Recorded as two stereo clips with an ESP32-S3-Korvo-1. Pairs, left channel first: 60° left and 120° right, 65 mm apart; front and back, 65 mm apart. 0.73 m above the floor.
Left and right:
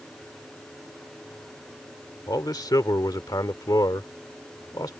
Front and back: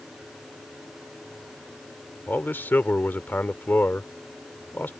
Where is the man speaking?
60° left.